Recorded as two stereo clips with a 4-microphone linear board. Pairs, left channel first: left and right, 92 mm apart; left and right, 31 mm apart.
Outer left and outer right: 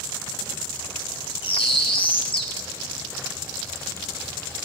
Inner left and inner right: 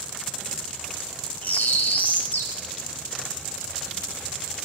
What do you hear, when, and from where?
1.4 s a bird: 65° left (ahead or behind), 1.4 m